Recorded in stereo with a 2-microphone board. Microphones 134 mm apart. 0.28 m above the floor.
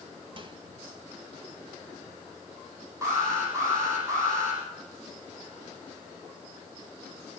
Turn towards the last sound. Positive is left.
turn(degrees=-20)  # may be behind; listen again after turning